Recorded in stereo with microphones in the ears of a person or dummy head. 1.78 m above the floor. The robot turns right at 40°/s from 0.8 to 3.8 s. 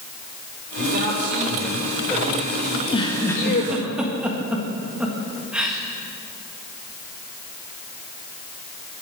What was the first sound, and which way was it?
A man speaking, 60° right.